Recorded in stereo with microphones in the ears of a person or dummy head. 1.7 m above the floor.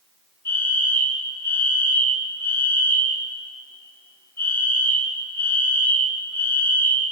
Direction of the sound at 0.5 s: 20° left (ahead or behind).